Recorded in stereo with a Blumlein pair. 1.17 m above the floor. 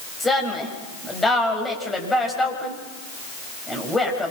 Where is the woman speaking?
10° left, 6.5 m.